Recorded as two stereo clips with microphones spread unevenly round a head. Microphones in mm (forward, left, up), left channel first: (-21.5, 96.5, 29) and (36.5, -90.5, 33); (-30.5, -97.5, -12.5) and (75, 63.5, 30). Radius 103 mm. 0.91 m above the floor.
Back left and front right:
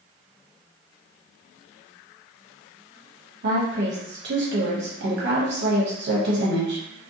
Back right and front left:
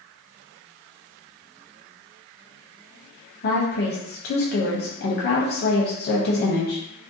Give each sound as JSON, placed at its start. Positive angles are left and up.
{"t": 3.4, "sound": "a woman speaking", "azimuth_deg": -105, "distance_m": 0.8}